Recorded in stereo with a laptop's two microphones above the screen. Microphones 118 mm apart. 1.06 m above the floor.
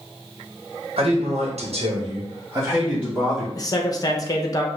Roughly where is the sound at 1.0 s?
Right.